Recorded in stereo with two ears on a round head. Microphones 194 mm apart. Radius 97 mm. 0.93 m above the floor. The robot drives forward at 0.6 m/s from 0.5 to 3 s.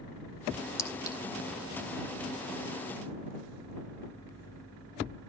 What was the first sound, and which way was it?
A clink, 15° left (ahead or behind).